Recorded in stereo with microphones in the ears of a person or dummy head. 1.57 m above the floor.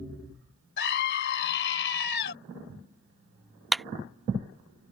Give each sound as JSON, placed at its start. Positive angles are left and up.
{"t": 0.8, "sound": "a scream", "side_deg": 55}
{"t": 3.7, "sound": "a clap", "side_deg": 0}